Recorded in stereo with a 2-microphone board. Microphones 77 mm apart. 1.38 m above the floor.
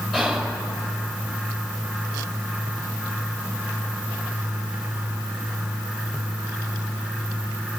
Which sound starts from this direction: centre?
Whispering, at 0.1 s.